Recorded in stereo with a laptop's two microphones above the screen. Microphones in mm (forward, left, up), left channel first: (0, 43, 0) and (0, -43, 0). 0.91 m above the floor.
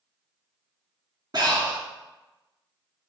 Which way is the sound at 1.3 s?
50° right (ahead or behind).